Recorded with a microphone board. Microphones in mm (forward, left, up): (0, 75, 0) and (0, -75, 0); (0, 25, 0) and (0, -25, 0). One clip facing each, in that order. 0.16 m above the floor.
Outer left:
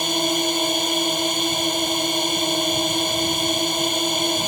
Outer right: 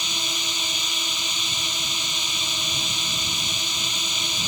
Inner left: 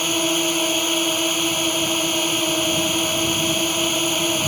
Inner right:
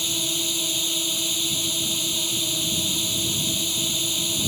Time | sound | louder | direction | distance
0.0 | a drone | outer left 13 dB, inner left 8 dB | 55° left (ahead or behind) | ?